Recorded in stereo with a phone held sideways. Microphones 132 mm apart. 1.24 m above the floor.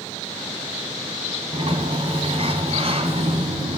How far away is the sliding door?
About 2.5 m.